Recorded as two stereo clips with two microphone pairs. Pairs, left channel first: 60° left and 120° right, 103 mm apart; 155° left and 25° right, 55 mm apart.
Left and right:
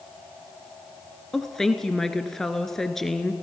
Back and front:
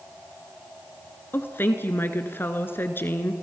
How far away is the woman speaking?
About 1.4 m.